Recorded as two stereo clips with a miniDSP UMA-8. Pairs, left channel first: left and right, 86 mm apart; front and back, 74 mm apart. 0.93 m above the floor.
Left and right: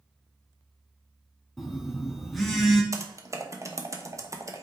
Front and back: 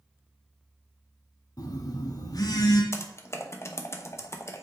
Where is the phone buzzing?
Straight ahead, 1.3 m.